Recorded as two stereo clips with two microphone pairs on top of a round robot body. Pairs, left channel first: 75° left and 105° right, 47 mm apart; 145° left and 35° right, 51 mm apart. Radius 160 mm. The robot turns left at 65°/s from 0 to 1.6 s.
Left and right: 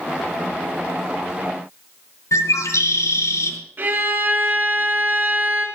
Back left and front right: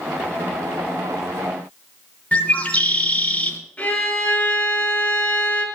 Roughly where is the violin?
Behind right.